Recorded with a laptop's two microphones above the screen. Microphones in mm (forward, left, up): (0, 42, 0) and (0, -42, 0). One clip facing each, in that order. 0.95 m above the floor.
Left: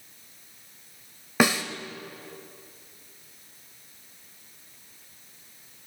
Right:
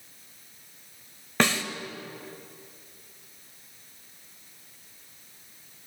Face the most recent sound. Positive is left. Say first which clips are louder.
# left 2 dB
turn(degrees=10)  # may be behind; listen again after turning